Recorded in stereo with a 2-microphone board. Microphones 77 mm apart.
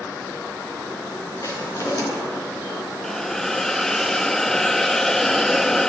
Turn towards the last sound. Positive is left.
turn(degrees=5)  # may be behind; listen again after turning